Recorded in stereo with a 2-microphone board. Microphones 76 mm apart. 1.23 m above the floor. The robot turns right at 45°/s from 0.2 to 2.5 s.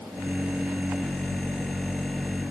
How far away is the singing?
No singing in this recording.